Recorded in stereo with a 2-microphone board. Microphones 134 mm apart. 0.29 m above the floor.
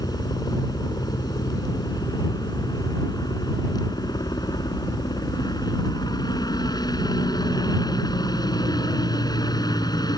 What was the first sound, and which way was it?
A helicopter, 30° left (ahead or behind).